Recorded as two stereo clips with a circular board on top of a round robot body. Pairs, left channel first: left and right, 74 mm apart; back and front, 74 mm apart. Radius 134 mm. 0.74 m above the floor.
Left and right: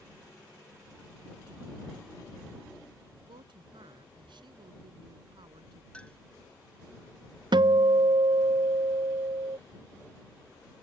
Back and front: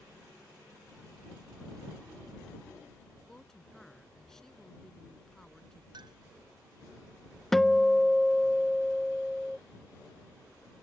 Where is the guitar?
95° right.